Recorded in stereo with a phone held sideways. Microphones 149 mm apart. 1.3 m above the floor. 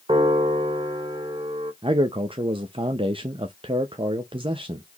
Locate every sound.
0.1 s a piano: 40° right (ahead or behind), 1.3 m
1.8 s a man speaking: 40° right (ahead or behind), 0.6 m